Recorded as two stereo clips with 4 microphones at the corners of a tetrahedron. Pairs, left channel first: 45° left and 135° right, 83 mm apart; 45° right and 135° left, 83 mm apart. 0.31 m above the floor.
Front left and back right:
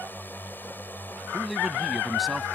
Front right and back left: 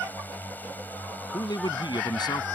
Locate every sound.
0.0 s a drone: straight ahead
1.3 s a man speaking: 45° right